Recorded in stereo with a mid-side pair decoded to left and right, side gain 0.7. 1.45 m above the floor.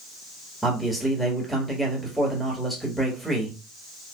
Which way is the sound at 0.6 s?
5° right.